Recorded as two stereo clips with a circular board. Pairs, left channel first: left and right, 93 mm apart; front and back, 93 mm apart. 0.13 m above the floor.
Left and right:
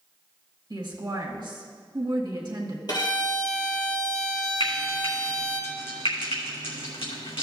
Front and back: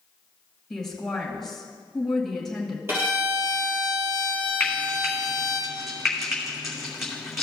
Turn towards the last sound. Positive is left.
turn(degrees=90)